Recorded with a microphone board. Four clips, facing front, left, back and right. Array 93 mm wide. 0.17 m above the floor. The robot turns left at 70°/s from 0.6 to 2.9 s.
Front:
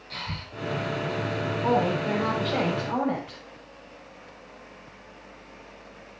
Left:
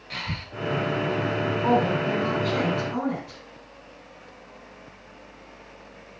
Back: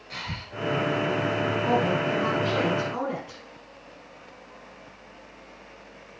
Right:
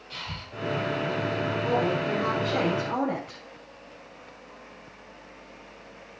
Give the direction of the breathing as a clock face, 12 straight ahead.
9 o'clock.